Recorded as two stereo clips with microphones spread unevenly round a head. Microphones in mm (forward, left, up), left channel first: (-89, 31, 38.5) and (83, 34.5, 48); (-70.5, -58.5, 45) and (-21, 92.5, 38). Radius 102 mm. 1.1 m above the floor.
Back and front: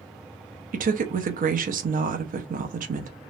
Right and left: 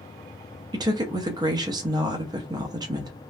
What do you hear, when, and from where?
0.7 s a woman speaking: 20° left, 0.7 m